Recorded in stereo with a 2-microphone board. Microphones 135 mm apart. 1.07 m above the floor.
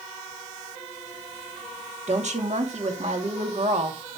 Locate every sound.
2.1 s a woman speaking: 55° right (ahead or behind), 2.5 m